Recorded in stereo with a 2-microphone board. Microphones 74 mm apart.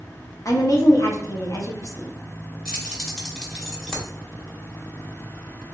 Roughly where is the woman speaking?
Left.